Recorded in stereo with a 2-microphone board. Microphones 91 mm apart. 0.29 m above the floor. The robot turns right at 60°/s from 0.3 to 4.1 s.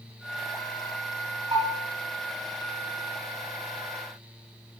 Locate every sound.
1.5 s a bell: 80° right, 8 m; by 1.8 s 60° right (ahead or behind), 8 m